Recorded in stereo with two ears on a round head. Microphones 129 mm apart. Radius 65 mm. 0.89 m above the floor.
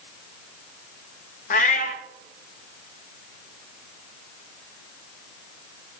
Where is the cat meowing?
50° left (ahead or behind), 0.7 m.